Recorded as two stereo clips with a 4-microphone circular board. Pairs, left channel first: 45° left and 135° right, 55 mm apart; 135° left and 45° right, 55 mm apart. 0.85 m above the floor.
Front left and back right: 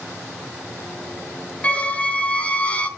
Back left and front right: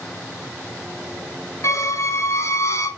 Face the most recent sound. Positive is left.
turn(degrees=110)